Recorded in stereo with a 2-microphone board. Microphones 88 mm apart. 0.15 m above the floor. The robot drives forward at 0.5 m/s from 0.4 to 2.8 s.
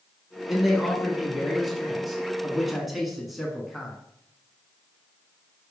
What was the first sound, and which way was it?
A man speaking, centre (ahead or behind).